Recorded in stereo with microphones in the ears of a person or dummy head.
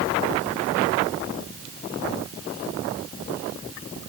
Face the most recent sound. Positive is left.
No sound to turn to.